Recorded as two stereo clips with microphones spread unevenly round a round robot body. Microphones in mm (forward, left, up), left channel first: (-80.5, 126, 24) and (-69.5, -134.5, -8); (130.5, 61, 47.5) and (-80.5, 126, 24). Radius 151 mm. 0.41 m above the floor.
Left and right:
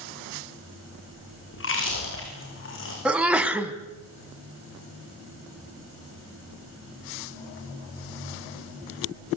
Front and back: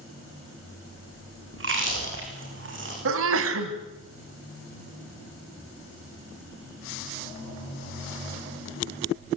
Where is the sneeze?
170° right, 3 m.